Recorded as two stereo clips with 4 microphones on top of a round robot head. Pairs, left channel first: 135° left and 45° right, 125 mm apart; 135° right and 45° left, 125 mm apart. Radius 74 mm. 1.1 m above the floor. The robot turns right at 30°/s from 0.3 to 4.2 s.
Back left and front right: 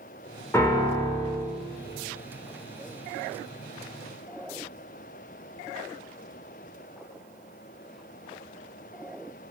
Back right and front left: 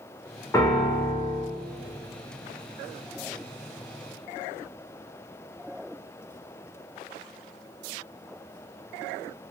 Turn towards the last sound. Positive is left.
turn(degrees=-65)